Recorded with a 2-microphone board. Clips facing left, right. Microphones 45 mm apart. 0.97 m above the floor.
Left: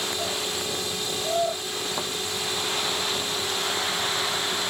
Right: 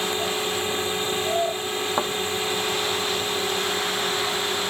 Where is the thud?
35° right (ahead or behind).